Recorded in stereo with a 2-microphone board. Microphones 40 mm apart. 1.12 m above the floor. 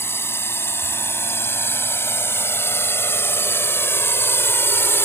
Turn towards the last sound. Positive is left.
turn(degrees=70)  # may be behind; listen again after turning